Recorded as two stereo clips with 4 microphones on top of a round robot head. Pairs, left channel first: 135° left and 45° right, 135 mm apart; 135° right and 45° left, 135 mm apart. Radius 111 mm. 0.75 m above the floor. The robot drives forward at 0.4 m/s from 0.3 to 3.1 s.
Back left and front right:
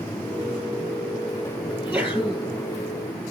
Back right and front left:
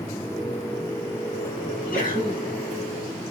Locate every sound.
1.7 s a sneeze: 120° right, 6.5 m; by 2.5 s 125° right, 6.5 m